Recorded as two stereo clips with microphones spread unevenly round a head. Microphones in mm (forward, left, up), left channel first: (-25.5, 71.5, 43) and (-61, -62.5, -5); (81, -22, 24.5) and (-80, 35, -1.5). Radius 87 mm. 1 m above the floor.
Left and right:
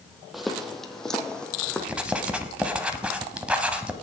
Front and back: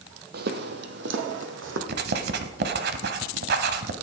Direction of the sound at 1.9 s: 155° left.